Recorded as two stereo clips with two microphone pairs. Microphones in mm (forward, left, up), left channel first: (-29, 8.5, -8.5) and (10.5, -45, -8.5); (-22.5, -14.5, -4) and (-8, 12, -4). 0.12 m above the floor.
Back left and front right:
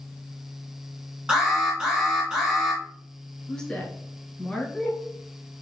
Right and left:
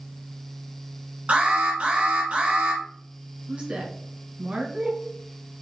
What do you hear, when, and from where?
1.3 s an alarm: 30° left, 2.5 m
3.5 s a woman speaking: 55° left, 1.3 m